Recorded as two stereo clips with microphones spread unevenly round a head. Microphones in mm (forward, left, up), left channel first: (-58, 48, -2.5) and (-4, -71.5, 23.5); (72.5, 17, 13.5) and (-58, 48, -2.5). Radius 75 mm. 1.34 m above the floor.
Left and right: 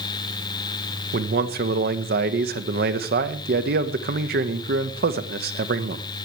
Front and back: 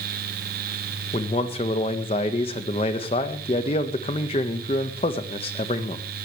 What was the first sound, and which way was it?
A man speaking, 70° right.